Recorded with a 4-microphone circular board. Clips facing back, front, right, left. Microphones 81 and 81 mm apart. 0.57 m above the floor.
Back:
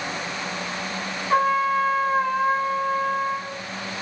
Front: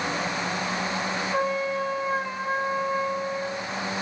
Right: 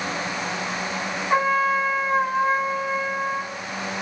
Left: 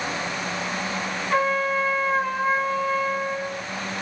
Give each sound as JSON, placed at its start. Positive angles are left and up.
{"t": 1.3, "sound": "a trumpet", "azimuth_deg": -160, "distance_m": 4.0}